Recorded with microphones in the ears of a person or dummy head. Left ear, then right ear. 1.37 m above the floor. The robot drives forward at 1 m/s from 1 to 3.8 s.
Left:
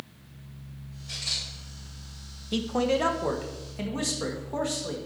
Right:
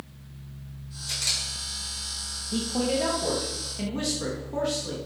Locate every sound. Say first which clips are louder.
1.1 s a camera shutter: right 3 dB; 45° right (ahead or behind), 4.5 m; by 1.4 s 40° right (ahead or behind), 4.5 m
2.5 s a man speaking: left 2 dB; 70° left (ahead or behind), 0.8 m; by 5.0 s 25° left (ahead or behind), 1.8 m